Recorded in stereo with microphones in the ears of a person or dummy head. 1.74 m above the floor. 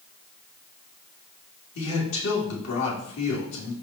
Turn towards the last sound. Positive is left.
turn(degrees=70)  # may be behind; listen again after turning